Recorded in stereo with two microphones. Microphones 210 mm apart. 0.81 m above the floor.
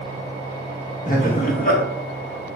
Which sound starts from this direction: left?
Laughter, at 1.1 s.